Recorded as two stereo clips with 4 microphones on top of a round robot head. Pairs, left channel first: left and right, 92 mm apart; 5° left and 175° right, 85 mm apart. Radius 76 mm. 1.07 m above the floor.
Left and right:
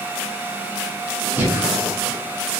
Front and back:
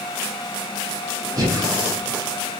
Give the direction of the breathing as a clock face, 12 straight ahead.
5 o'clock.